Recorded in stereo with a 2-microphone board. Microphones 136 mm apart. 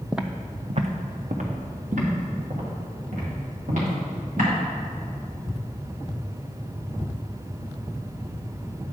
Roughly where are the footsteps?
Centre.